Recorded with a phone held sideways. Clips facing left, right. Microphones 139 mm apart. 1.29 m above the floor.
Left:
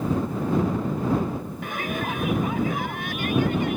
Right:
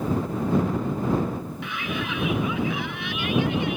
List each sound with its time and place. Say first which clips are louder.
1.6 s a shout: left 3 dB; 45° left (ahead or behind)